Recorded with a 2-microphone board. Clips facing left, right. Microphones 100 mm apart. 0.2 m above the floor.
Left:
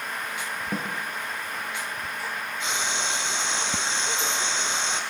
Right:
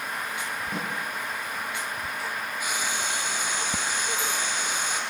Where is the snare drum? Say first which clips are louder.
Left 3 dB; 40° left (ahead or behind), 8.5 m.